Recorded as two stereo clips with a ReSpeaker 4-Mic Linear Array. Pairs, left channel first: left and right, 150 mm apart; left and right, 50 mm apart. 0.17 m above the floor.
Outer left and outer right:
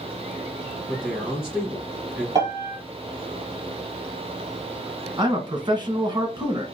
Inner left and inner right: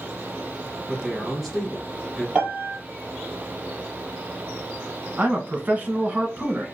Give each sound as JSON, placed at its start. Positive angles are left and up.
{"t": 0.9, "sound": "a man speaking", "side_deg": -5, "distance_m": 3.0}
{"t": 2.4, "sound": "a piano", "side_deg": -25, "distance_m": 3.0}
{"t": 5.2, "sound": "a man speaking", "side_deg": -30, "distance_m": 1.1}